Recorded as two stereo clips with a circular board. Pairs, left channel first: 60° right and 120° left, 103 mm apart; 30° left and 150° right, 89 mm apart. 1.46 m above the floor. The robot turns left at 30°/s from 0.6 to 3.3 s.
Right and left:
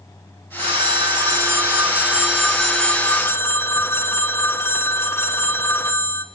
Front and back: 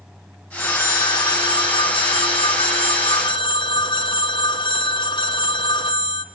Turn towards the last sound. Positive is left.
turn(degrees=5)